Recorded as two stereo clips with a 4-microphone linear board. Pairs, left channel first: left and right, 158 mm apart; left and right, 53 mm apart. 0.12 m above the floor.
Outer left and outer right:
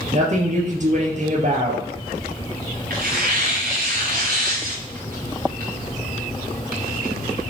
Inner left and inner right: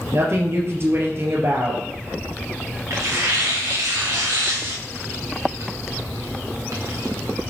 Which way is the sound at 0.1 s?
50° right (ahead or behind).